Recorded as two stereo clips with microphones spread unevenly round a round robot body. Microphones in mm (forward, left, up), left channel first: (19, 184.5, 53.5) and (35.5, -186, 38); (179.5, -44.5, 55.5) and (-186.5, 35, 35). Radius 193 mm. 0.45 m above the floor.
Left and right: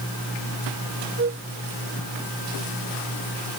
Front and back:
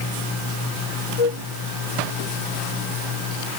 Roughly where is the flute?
Ahead right.